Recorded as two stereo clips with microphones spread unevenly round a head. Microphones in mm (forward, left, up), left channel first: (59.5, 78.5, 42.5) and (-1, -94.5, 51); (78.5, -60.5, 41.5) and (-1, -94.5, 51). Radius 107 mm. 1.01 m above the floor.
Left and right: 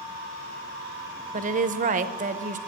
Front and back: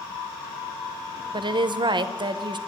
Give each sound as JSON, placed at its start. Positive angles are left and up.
{"t": 1.3, "sound": "a woman speaking", "azimuth_deg": -145, "distance_m": 0.8}